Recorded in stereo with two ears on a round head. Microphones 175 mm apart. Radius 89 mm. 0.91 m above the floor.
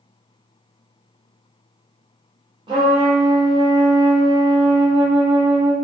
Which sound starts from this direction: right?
A trumpet, at 2.7 s.